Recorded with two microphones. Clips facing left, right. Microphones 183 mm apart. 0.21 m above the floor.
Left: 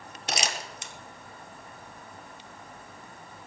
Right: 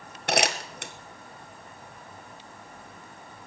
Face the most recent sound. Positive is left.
turn(degrees=-65)  # may be behind; listen again after turning